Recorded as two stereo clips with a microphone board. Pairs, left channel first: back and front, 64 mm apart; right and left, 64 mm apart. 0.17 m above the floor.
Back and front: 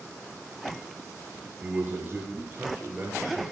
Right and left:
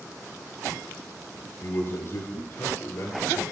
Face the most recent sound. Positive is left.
turn(degrees=-55)